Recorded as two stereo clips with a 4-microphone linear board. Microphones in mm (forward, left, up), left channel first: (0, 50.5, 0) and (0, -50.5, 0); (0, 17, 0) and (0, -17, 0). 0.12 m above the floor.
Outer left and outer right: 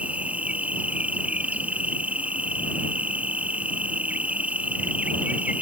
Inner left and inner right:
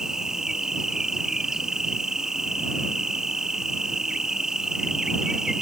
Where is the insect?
15° right (ahead or behind).